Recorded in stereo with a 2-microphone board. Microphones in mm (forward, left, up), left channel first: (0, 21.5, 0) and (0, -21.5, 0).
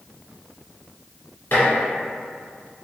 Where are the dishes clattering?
55° left (ahead or behind), 1.5 m.